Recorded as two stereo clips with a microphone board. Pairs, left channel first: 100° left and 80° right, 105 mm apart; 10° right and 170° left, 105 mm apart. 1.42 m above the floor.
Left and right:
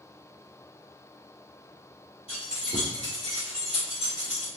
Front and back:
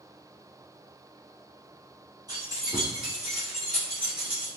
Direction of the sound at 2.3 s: 120° left.